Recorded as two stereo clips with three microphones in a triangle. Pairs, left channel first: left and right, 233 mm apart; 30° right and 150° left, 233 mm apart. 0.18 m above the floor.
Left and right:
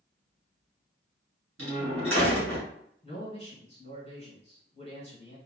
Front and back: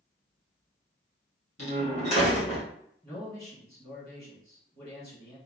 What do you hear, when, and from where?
1.6 s a door slam: 85° right, 1.4 m
3.0 s a man speaking: 55° left, 1.4 m